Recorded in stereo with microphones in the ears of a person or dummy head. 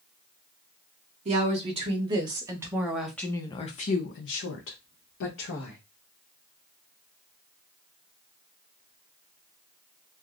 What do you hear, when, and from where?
1.2 s a woman speaking: 40° right (ahead or behind), 1.6 m; by 5.8 s 75° left (ahead or behind), 1.5 m